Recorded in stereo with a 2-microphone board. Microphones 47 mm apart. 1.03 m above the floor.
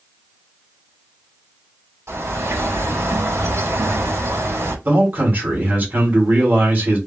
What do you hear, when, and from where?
2.1 s a bird: 65° right (ahead or behind), 1.5 m
4.8 s a man speaking: 40° right (ahead or behind), 1.9 m